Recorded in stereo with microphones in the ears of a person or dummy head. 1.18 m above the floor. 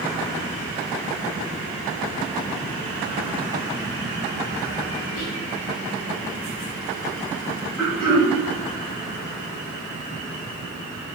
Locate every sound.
5.2 s whispering: 60° left (ahead or behind), 0.7 m
7.8 s throat clearing: 5° left (ahead or behind), 1.0 m